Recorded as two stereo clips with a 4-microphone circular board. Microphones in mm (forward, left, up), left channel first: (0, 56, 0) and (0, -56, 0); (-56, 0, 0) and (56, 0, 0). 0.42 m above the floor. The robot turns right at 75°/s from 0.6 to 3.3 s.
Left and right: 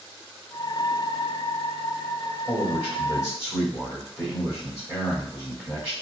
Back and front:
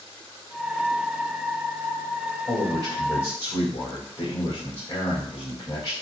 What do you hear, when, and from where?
2.5 s a man speaking: 70° left, 2 m; by 5.9 s 130° left, 2 m